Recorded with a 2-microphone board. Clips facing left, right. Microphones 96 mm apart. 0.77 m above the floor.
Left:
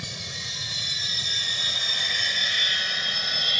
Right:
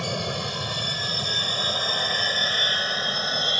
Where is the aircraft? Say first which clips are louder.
Right 12 dB; 60° right (ahead or behind); by 3.6 s 30° right (ahead or behind).